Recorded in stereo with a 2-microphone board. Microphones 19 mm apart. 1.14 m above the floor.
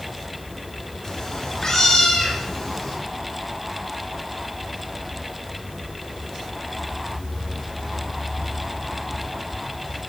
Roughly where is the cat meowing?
Left.